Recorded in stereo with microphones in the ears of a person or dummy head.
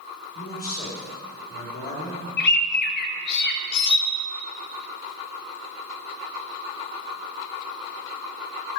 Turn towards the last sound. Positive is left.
turn(degrees=70)  # may be behind; listen again after turning